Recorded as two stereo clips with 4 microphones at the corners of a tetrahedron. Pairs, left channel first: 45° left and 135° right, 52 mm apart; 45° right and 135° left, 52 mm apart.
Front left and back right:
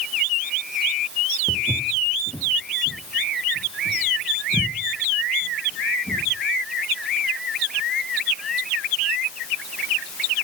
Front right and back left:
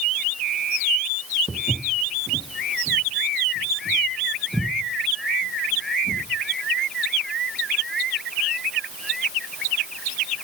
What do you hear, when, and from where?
1.5 s footsteps: 5° right, 1.8 m; by 6.2 s 40° left, 6.5 m